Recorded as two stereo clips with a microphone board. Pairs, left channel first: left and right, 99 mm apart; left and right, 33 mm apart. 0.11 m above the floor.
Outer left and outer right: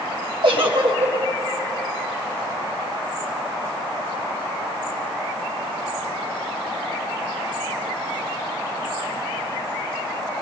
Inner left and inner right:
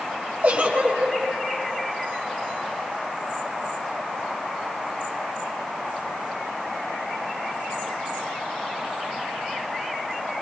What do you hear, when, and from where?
0.4 s a giggle: 60° right (ahead or behind), 7.5 m